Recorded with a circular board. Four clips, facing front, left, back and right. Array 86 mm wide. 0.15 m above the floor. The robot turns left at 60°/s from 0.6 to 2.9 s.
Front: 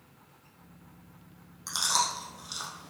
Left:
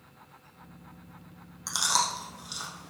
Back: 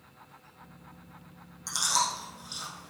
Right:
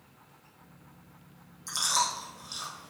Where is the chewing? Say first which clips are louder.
Left 1 dB, even; 85° left, 4 m; by 2.9 s 10° left, 4 m.